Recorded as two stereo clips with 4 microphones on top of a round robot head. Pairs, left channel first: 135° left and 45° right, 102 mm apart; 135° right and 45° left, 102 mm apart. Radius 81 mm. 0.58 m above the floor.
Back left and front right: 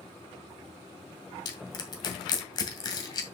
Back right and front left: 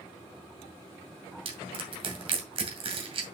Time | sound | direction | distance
1.4 | crushing | 85° left | 2 m